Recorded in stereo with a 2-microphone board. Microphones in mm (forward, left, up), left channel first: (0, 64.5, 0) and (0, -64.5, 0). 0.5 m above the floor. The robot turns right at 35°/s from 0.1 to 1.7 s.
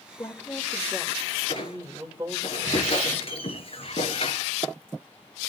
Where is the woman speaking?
150° left, 1.8 m; by 2.5 s 155° right, 1.8 m.